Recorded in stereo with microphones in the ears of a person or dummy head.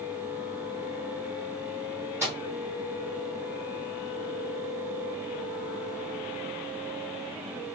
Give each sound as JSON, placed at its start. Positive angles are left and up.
{"t": 2.2, "sound": "a microwave", "side_deg": -15, "distance_m": 0.7}